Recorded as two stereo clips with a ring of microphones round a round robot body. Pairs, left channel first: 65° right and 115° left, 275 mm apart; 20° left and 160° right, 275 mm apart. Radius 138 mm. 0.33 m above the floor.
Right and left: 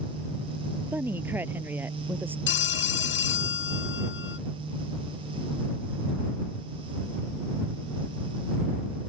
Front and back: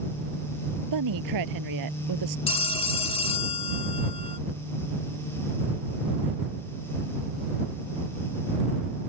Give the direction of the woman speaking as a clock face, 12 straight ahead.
5 o'clock.